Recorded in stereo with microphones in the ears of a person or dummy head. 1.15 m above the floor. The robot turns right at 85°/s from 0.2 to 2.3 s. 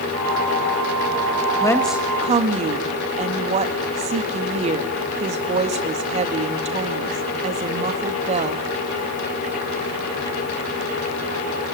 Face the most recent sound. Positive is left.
turn(degrees=-135)